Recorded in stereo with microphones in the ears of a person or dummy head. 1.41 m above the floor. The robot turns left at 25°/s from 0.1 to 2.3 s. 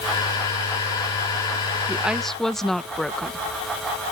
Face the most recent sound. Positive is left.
turn(degrees=5)  # may be behind; listen again after turning